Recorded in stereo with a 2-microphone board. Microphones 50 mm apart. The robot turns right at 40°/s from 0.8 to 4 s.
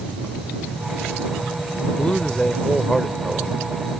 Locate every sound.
2.0 s a man speaking: 130° left; by 3.6 s 170° right